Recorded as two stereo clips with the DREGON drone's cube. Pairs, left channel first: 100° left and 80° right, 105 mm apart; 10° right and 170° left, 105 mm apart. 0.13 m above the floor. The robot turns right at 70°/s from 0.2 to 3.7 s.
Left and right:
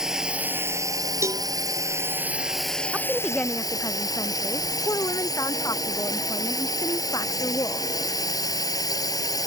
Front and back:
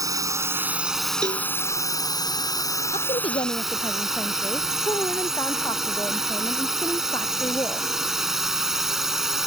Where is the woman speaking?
10° right; by 7.9 s 45° left.